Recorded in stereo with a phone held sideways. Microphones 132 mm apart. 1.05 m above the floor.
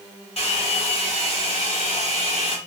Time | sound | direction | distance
0.4 | a hair dryer | 50° left (ahead or behind) | 1.1 m